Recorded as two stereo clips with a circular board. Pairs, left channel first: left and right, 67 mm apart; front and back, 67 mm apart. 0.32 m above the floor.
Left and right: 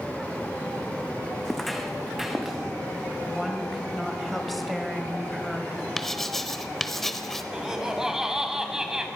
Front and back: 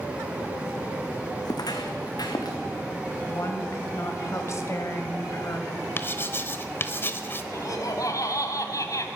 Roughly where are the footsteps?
Ahead.